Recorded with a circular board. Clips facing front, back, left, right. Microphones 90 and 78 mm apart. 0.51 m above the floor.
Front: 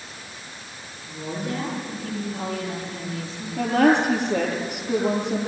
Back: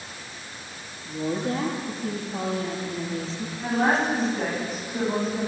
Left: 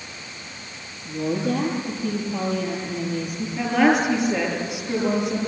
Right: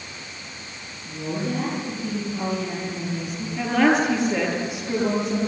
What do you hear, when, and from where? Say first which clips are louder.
1.1 s a woman speaking: back 3 dB, left 4 dB; 115° left, 9.5 m
3.6 s a woman speaking: front 5 dB, even; 5° left, 9 m